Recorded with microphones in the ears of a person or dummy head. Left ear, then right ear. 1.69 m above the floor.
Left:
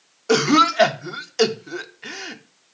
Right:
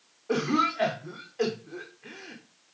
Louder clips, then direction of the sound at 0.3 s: Left 10 dB; 65° left (ahead or behind).